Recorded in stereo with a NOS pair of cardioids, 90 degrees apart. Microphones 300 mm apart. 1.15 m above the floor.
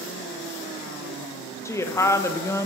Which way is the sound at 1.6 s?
10° left.